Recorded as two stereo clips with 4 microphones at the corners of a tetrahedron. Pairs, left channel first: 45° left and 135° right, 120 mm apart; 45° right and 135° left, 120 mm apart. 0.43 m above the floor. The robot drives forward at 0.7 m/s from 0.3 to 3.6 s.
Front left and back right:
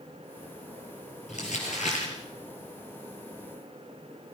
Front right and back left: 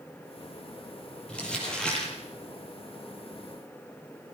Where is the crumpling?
35° left, 7.5 m; by 2.1 s 40° left, 7 m.